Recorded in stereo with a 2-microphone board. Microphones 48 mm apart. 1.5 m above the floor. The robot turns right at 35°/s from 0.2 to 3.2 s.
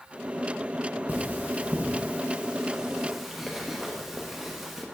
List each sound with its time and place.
1.1 s cutlery clinking: 30° right (ahead or behind), 0.9 m; by 4.8 s 5° right (ahead or behind), 0.9 m